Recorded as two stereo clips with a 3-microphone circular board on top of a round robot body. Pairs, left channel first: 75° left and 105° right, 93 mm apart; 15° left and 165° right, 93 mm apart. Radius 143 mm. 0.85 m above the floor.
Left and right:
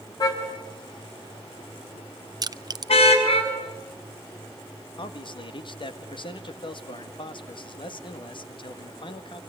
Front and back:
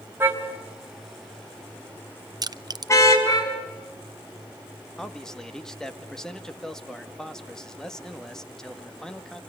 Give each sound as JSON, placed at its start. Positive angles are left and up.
{"t": 0.2, "sound": "a car horn", "azimuth_deg": 125, "distance_m": 3.5}
{"t": 2.4, "sound": "crushing", "azimuth_deg": -135, "distance_m": 0.9}
{"t": 5.0, "sound": "a man speaking", "azimuth_deg": 100, "distance_m": 2.0}